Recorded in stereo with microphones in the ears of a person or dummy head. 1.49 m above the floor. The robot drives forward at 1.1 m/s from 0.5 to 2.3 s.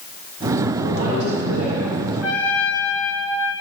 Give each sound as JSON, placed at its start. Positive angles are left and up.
{"t": 0.8, "sound": "a woman speaking", "side_deg": -65, "distance_m": 6.5}
{"t": 2.2, "sound": "a trumpet", "side_deg": -15, "distance_m": 5.0}